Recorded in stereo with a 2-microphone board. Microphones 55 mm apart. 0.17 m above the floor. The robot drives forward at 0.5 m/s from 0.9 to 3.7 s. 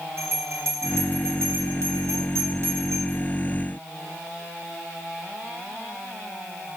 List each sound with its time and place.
0.2 s a bell: 60° right (ahead or behind), 3 m